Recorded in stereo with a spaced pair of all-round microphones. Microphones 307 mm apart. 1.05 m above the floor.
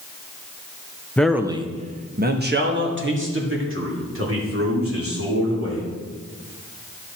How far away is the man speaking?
About 0.6 m.